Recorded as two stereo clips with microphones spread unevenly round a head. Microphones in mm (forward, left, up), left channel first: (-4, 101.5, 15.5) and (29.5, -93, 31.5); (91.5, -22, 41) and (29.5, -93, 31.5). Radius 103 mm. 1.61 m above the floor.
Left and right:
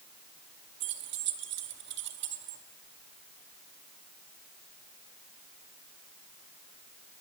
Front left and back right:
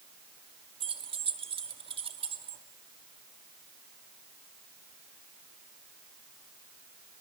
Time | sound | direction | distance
0.8 | keys jangling | 110° right | 2 m